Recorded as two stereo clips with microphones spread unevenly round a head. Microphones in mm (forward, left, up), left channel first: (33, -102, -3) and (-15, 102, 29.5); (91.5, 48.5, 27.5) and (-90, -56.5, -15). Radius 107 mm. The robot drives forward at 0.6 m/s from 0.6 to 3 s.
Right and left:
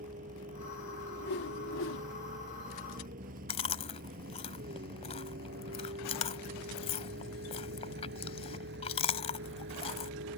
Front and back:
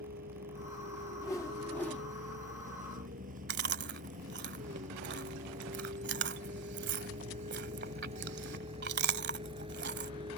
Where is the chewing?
135° right.